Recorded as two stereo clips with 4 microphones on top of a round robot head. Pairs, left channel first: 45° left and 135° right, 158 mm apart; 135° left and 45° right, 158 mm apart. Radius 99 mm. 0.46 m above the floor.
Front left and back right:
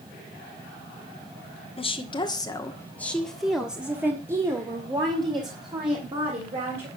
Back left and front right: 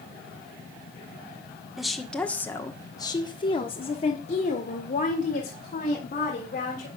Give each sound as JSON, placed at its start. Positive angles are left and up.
{"t": 1.8, "sound": "a woman speaking", "azimuth_deg": 45, "distance_m": 1.5}